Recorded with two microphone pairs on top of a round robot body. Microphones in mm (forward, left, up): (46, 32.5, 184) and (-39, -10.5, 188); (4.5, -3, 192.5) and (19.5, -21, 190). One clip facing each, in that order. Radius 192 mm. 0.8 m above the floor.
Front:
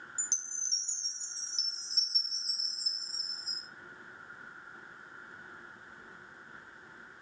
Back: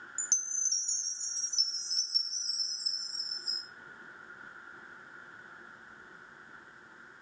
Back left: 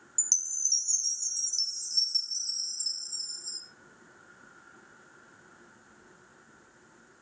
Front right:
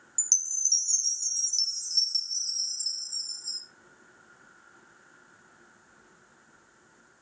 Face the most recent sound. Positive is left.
turn(degrees=-120)